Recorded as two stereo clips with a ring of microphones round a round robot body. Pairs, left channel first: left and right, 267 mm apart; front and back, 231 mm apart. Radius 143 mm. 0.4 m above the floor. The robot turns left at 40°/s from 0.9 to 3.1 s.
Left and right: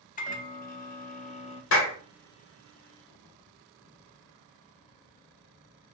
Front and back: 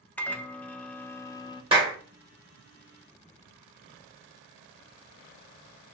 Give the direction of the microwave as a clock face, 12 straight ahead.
9 o'clock.